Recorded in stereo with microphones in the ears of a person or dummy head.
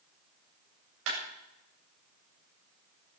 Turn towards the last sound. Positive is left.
turn(degrees=-70)  # may be behind; listen again after turning